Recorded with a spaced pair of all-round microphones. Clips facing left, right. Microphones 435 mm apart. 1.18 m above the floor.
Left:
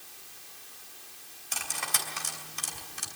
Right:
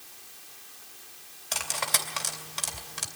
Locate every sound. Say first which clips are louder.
1.5 s cutlery clinking: right 5 dB; 80° right, 2.5 m